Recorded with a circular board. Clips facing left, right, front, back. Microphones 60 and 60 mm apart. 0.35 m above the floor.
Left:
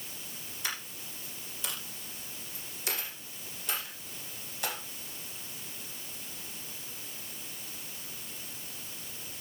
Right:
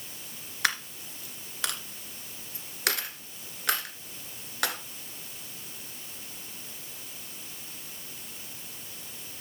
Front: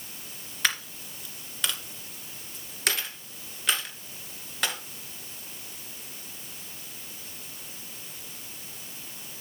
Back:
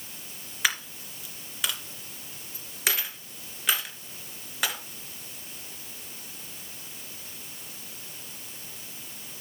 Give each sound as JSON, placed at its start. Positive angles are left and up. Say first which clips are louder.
{"t": 0.6, "sound": "a dropped coin", "louder": "right 10 dB, back 1 dB", "azimuth_deg": -95, "distance_m": 2.0}